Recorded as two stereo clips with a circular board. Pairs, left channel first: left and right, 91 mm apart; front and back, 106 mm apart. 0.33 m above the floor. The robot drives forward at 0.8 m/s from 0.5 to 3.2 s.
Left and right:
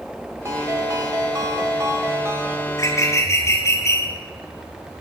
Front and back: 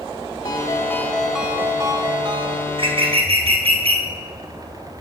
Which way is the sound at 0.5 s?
40° right.